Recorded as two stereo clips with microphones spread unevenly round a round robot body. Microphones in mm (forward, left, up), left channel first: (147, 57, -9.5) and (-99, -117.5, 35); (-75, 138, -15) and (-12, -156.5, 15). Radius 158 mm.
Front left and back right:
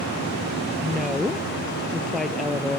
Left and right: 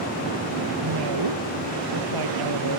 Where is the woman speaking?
55° right.